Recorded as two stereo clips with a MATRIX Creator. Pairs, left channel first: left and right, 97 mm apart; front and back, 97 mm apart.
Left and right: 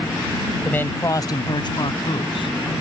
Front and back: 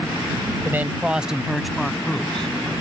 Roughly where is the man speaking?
Behind left.